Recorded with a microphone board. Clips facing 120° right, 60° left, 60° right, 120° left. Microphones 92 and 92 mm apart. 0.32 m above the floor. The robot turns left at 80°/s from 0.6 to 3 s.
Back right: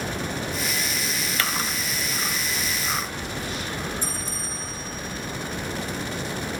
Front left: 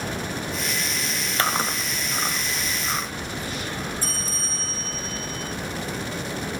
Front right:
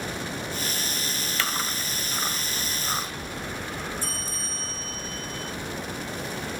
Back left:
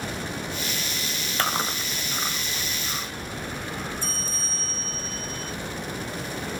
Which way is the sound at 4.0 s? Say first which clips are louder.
Even, back left 1 dB; straight behind.